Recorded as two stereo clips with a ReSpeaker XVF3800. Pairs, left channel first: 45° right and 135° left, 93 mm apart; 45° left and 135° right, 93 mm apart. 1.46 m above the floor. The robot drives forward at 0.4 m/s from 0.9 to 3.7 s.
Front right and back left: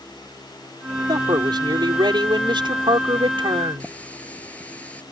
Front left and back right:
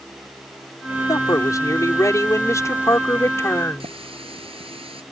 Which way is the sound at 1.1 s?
95° left.